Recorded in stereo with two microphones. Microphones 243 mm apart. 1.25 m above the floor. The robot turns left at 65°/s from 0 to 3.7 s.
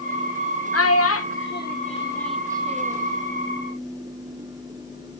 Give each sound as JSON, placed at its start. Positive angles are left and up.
{"t": 0.7, "sound": "a child speaking", "side_deg": 70, "distance_m": 1.0}